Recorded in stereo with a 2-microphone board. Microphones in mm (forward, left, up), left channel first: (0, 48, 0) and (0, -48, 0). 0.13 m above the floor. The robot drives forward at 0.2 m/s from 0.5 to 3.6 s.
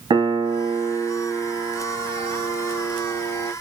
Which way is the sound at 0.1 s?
60° right (ahead or behind).